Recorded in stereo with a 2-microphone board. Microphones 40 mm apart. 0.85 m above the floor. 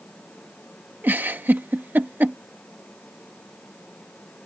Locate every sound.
1.0 s a giggle: 50° right (ahead or behind)